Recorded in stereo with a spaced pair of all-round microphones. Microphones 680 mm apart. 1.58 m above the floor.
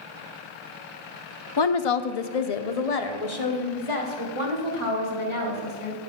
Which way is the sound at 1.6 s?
40° left (ahead or behind).